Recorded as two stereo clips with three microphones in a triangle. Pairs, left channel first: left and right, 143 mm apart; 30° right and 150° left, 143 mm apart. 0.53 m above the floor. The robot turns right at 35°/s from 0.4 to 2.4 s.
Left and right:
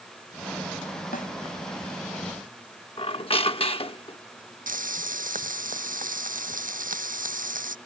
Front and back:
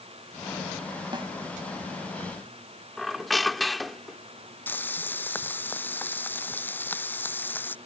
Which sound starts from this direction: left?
A snare drum, at 1.1 s.